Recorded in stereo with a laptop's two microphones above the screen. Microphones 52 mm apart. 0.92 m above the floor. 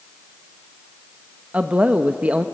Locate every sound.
1.5 s a woman speaking: 25° right (ahead or behind), 0.9 m